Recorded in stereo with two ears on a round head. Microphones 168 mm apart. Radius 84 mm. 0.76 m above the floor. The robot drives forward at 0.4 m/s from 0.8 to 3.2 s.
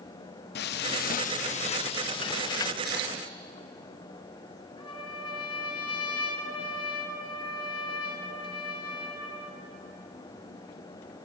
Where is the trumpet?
25° left (ahead or behind), 3 m.